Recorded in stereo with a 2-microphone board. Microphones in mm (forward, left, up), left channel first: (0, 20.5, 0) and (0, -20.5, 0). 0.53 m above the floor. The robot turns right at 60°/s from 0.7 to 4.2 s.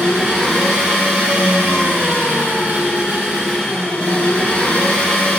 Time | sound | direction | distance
0.0 | an engine running | 170° right | 0.8 m